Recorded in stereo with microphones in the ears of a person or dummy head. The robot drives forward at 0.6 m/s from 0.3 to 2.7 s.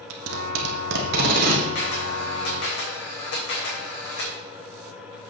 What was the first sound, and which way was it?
Tape being pulled, 80° right.